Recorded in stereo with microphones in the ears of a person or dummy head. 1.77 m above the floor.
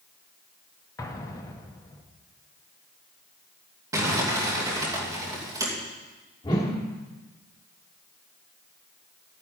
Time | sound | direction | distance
1.0 | an explosion | 15° left (ahead or behind) | 1.2 m
3.9 | crumpling | 20° right (ahead or behind) | 2.5 m
6.4 | a whoosh | 20° left (ahead or behind) | 1.4 m